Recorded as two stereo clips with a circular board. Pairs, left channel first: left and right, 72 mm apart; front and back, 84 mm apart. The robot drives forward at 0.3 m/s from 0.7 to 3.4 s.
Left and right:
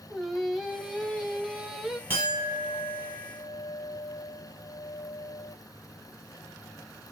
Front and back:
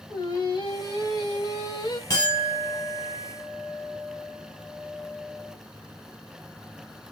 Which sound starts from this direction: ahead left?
A clink, at 2.1 s.